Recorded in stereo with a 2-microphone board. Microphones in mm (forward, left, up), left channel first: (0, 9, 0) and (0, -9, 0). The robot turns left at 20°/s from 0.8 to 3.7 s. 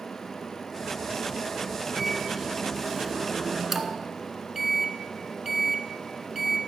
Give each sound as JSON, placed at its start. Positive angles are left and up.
{"t": 2.0, "sound": "a microwave", "side_deg": -15, "distance_m": 1.1}